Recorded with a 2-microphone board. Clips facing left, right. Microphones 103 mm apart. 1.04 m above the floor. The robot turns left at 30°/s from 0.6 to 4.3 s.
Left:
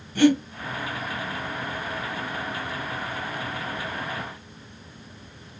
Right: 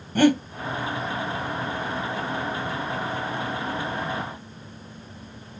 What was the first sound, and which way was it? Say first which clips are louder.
Breathing: even; 45° right (ahead or behind).